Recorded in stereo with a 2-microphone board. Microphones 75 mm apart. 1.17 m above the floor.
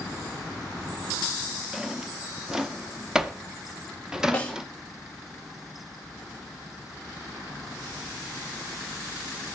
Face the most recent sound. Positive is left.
turn(degrees=20)  # may be behind; listen again after turning